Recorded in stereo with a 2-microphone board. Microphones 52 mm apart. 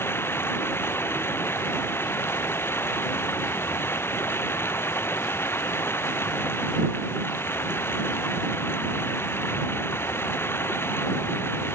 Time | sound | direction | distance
0.0 | running water | 50° left (ahead or behind) | ?